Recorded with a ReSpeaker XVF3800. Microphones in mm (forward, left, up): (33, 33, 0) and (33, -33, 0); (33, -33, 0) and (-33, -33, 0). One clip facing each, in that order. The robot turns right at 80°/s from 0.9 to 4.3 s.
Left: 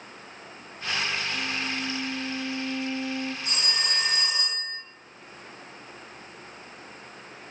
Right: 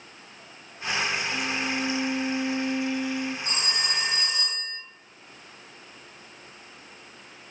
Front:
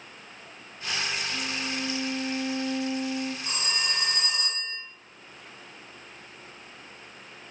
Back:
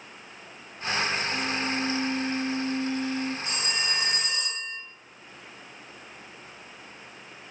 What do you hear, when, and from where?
1.3 s a violin: 140° right, 0.6 m; by 3.4 s 25° left, 0.6 m
3.5 s a phone ringing: 45° right, 1.1 m; by 4.8 s 20° left, 1.1 m